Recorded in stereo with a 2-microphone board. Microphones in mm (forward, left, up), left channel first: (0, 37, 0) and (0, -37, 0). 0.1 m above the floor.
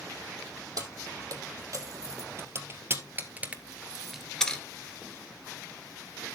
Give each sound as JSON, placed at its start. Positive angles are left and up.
{"t": 0.8, "sound": "keys jangling", "side_deg": -55, "distance_m": 3.0}